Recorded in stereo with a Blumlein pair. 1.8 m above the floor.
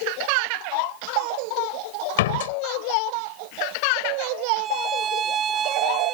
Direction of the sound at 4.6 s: 25° right.